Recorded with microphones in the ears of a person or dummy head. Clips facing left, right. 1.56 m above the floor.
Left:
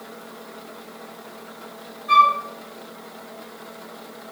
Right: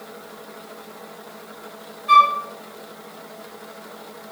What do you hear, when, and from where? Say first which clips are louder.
2.1 s a flute: right 1 dB; 30° right (ahead or behind), 0.7 m